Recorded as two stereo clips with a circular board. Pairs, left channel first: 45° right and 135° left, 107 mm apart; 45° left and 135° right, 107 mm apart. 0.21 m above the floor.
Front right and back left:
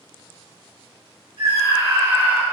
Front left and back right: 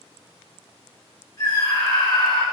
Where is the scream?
85° left, 2.5 m; by 2.4 s 60° left, 1.4 m.